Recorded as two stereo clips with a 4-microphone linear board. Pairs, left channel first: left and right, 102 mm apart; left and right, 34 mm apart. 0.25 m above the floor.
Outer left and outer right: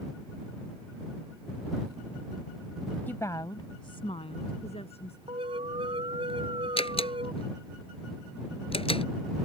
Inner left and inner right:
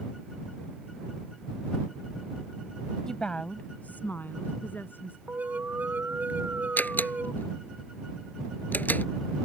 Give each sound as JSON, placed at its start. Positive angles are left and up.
{"t": 3.1, "sound": "a woman speaking", "side_deg": 15}
{"t": 5.3, "sound": "an alarm", "side_deg": -55}
{"t": 6.8, "sound": "a door slam", "side_deg": 60}